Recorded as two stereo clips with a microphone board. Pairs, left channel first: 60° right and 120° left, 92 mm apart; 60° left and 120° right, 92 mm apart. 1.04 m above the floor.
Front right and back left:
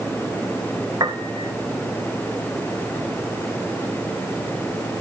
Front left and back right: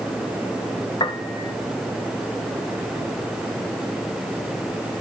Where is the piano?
80° left, 1.7 m.